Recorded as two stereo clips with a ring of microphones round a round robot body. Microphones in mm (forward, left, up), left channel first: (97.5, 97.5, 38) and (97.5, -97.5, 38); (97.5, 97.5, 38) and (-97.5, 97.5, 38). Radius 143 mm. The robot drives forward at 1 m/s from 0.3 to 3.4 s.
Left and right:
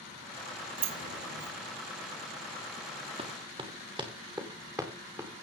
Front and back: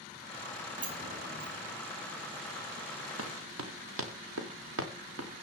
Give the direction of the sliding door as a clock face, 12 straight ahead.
4 o'clock.